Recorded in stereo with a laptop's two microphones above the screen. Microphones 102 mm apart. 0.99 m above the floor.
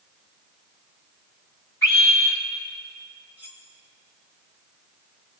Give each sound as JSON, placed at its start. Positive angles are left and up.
{"t": 1.8, "sound": "a scream", "side_deg": 25, "distance_m": 6.0}
{"t": 3.4, "sound": "cutlery clinking", "side_deg": -15, "distance_m": 3.0}